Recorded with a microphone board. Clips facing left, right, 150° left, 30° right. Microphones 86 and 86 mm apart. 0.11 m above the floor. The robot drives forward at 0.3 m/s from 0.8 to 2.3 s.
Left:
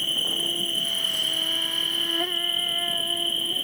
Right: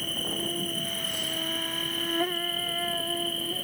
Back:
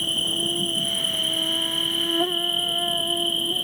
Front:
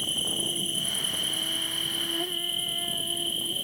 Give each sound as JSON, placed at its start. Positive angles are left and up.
{"t": 0.0, "sound": "an insect", "azimuth_deg": -175}